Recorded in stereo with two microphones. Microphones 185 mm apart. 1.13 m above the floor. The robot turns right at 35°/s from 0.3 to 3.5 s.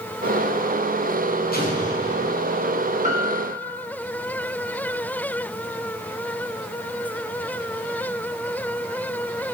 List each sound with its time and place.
1.5 s an explosion: 60° left (ahead or behind), 4 m; by 2.4 s 30° left (ahead or behind), 4 m
3.0 s a piano: 40° right (ahead or behind), 1.6 m; by 3.7 s 60° right (ahead or behind), 1.6 m